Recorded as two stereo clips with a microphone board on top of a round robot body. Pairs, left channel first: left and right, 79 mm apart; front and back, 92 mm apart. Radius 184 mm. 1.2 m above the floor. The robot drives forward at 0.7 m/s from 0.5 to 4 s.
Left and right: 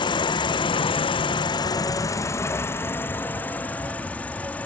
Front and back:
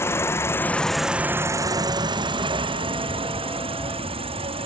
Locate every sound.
0.0 s an insect: 65° left; by 4.7 s 160° left